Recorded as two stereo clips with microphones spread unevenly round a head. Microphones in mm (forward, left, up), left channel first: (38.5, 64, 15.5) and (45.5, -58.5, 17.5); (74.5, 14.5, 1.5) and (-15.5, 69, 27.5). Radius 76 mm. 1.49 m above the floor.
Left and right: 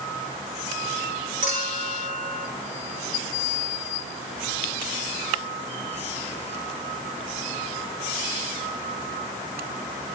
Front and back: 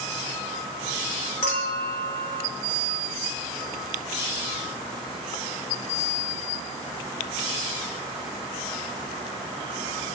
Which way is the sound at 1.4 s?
80° right.